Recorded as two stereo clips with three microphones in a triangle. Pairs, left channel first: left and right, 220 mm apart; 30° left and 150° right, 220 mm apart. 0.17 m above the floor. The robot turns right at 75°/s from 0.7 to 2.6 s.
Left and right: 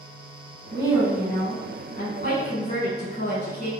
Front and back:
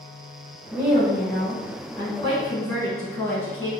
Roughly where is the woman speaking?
Ahead right.